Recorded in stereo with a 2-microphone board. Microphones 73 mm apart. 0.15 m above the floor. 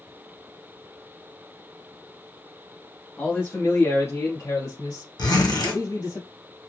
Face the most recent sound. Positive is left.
turn(degrees=75)  # may be behind; listen again after turning